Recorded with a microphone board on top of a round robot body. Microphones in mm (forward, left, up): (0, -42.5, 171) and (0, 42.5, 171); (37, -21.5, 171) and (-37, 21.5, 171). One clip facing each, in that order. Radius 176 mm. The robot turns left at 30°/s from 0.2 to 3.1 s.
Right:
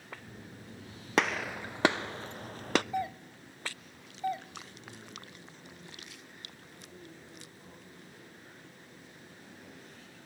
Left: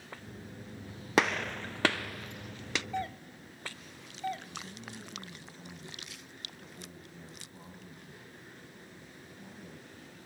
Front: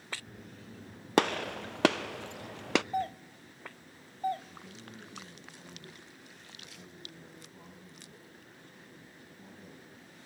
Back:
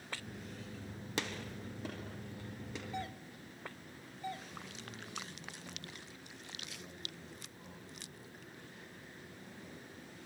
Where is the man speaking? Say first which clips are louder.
Left 3 dB, even; 35° left, 9 m.